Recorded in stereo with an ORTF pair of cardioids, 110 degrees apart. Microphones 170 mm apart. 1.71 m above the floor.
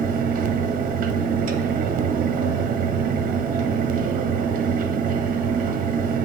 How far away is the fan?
About 0.8 m.